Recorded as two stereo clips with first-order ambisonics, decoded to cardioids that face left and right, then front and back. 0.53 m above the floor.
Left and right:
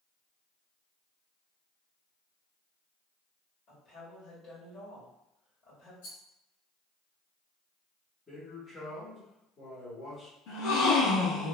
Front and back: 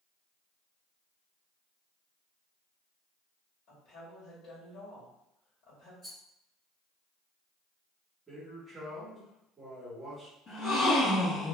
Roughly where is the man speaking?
Behind left.